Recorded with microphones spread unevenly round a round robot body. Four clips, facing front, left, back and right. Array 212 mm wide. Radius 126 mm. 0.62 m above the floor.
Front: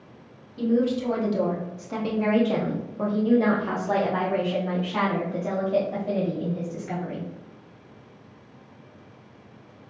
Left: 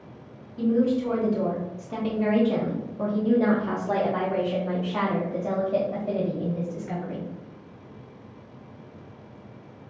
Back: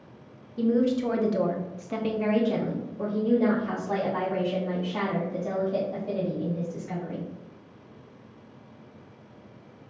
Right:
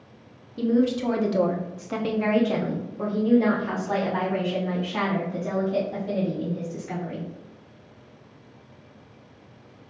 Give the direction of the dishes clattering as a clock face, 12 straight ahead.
I don't hear dishes clattering.